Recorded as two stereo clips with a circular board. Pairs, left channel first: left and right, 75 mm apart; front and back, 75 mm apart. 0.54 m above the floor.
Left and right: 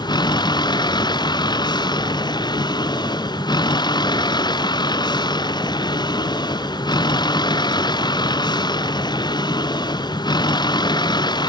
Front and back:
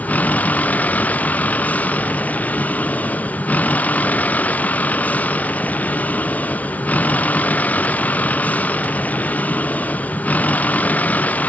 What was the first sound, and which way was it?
A vehicle, 70° left.